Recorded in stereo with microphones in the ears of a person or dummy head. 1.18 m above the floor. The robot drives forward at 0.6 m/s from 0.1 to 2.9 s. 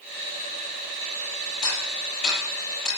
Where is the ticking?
45° left (ahead or behind), 10 m; by 2.9 s 40° left (ahead or behind), 10.5 m.